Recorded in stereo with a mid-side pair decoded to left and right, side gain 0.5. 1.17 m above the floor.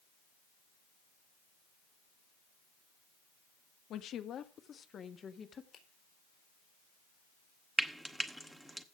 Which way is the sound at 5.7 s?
60° left.